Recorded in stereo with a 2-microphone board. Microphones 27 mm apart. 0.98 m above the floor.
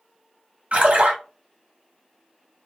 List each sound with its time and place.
0.7 s a splash: 60° right (ahead or behind), 1.0 m